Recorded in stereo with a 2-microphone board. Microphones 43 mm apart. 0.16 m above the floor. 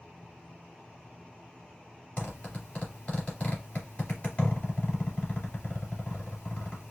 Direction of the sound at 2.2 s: 35° left (ahead or behind).